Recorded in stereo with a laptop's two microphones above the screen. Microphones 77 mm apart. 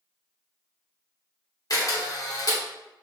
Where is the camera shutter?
50° left (ahead or behind), 0.8 m.